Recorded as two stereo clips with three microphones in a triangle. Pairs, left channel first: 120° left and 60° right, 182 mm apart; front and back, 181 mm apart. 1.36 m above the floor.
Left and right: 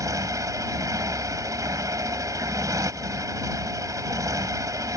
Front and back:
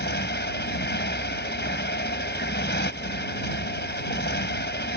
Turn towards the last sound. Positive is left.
turn(degrees=10)